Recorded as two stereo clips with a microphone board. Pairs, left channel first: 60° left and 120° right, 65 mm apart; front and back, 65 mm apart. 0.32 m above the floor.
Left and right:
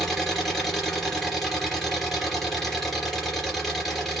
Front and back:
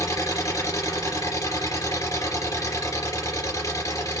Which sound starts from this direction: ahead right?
An engine running, at 0.0 s.